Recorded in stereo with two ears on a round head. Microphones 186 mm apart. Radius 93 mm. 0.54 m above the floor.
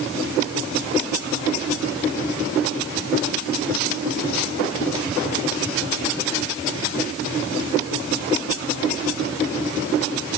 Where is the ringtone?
I don't hear a ringtone.